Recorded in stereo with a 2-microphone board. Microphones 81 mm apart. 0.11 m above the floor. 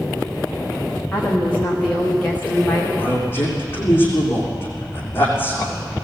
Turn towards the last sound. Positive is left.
turn(degrees=30)  # may be behind; listen again after turning